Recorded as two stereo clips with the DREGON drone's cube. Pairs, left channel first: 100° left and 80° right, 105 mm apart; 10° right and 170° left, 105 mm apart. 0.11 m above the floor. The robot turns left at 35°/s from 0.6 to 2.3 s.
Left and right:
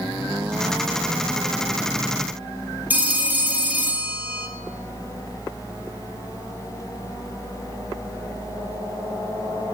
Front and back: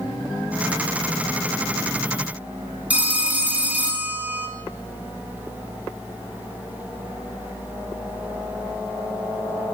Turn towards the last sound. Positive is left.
turn(degrees=-130)